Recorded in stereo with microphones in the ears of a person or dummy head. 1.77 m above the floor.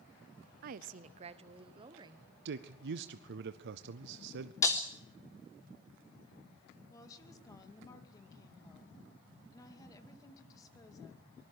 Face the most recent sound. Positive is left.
turn(degrees=20)  # may be behind; listen again after turning